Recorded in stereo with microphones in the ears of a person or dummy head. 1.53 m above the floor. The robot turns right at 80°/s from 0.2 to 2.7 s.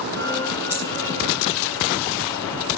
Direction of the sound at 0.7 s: 5° right (ahead or behind).